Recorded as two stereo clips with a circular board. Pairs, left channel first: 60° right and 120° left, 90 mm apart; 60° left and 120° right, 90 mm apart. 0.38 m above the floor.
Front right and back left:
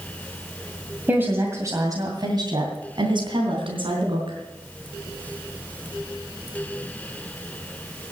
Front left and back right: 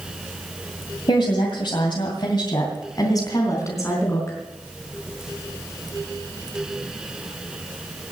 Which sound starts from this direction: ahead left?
A woman speaking, at 1.1 s.